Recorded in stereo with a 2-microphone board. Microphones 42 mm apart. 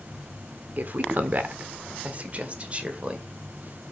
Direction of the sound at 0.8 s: 45° right (ahead or behind).